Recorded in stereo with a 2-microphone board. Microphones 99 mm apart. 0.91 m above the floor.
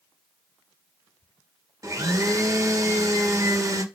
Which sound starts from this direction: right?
A blender, at 1.8 s.